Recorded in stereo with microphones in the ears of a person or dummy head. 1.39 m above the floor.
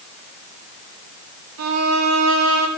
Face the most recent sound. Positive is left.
turn(degrees=-70)  # may be behind; listen again after turning